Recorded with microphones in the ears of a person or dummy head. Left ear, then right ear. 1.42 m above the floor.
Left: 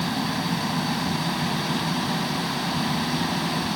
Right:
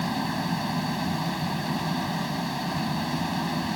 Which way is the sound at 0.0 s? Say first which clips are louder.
Left 2 dB; 15° right (ahead or behind).